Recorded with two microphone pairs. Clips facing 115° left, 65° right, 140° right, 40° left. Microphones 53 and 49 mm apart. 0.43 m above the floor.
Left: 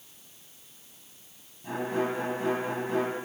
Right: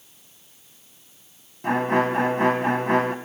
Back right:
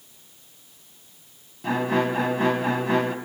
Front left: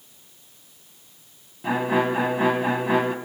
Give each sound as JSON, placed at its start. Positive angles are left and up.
{"t": 1.6, "sound": "a violin", "azimuth_deg": -40, "distance_m": 2.5}